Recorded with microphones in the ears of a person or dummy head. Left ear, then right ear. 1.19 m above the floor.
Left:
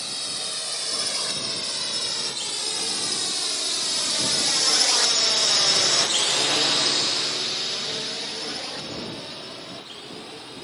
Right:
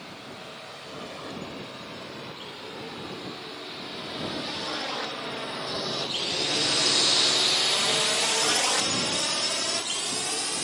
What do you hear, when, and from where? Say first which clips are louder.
0.0 s a drone: left 11 dB; 75° left (ahead or behind); by 10.7 s 60° right (ahead or behind)